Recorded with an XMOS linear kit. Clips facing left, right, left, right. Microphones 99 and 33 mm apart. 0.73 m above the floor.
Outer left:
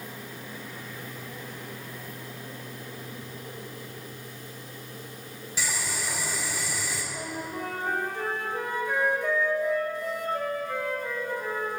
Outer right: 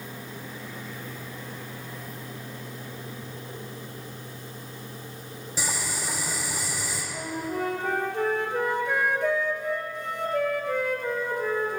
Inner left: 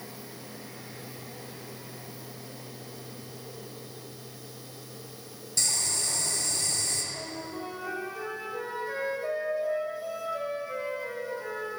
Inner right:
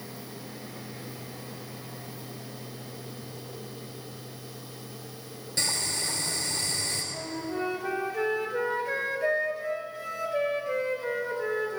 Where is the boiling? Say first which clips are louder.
Outer right 1 dB, inner right 1 dB; 35° right (ahead or behind), 4 m.